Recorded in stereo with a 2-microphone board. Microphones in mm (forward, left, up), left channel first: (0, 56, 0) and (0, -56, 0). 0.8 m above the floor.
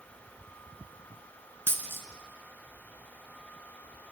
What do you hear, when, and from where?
1.7 s a dropped coin: 20° right (ahead or behind), 1.9 m